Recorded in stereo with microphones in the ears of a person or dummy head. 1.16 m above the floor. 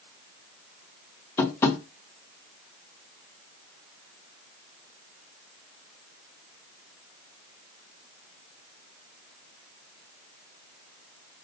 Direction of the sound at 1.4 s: 10° left (ahead or behind).